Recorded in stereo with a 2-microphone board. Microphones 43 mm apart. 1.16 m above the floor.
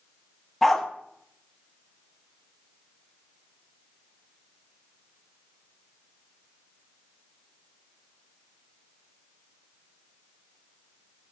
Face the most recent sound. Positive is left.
turn(degrees=5)  # may be behind; listen again after turning